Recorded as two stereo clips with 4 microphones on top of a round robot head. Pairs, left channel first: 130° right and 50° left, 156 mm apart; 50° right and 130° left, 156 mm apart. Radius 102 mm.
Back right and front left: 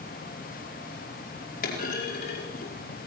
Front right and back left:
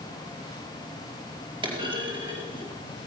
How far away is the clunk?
About 4.5 m.